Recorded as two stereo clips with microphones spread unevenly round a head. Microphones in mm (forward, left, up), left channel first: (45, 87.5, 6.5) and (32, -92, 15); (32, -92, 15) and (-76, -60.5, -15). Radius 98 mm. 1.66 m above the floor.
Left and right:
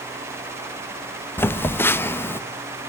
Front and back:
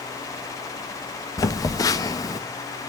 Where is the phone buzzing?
10° left, 1.1 m.